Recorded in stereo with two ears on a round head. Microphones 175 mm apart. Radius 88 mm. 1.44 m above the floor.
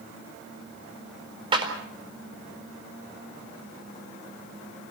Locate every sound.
1.5 s a clap: 25° right (ahead or behind), 4 m